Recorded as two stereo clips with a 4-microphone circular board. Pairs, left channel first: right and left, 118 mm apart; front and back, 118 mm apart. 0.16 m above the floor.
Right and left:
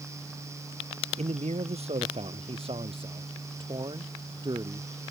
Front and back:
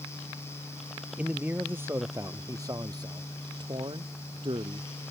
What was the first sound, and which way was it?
A man speaking, 100° left.